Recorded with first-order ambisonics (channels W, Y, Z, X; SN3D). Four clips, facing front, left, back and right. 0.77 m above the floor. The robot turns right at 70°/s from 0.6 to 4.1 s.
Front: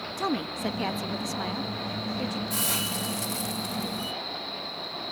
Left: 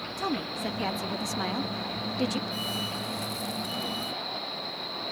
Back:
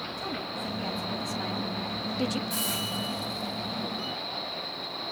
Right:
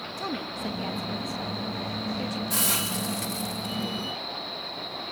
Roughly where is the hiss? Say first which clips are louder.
Right 4 dB, front 1 dB; right.